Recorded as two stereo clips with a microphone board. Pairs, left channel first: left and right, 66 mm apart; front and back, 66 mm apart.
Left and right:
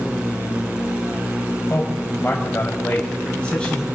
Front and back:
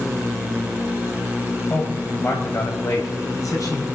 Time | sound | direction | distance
1.7 | a man speaking | 45° left | 1.9 m